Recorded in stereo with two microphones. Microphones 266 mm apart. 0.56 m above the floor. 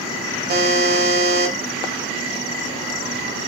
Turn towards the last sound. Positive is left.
turn(degrees=-35)  # may be behind; listen again after turning